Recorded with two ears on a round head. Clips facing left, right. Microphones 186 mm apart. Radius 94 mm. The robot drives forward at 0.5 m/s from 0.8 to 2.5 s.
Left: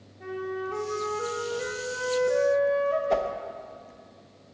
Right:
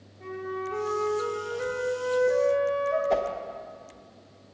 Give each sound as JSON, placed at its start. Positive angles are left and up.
{"t": 0.2, "sound": "a flute", "side_deg": 5, "distance_m": 2.0}
{"t": 3.1, "sound": "a whoosh", "side_deg": 0, "distance_m": 0.7}